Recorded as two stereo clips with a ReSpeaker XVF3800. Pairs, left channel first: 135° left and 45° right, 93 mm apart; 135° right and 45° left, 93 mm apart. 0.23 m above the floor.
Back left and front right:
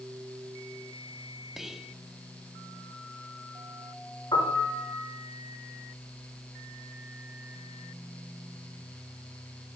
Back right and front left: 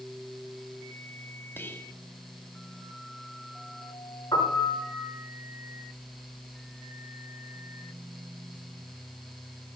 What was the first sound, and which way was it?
Whispering, 125° right.